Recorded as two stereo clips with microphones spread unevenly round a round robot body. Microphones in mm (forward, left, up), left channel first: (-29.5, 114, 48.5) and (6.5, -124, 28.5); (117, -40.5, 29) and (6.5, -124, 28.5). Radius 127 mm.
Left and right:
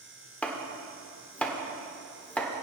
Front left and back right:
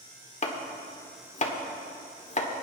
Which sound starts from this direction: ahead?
Chopping, at 0.4 s.